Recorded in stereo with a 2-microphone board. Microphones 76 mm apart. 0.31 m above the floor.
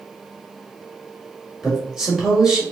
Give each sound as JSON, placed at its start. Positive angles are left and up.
{"t": 1.6, "sound": "a man speaking", "side_deg": -10, "distance_m": 1.6}